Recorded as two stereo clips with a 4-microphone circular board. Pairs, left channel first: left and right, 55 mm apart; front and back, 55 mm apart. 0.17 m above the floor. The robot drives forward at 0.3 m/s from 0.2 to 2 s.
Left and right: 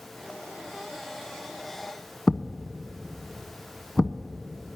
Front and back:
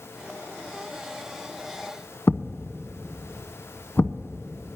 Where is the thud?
10° left, 0.7 m.